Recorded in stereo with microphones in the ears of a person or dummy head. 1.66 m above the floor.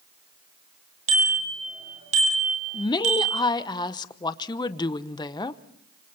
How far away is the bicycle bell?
About 6.5 m.